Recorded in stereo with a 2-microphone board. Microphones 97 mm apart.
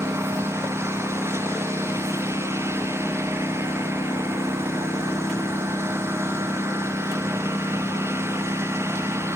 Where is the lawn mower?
25° right (ahead or behind).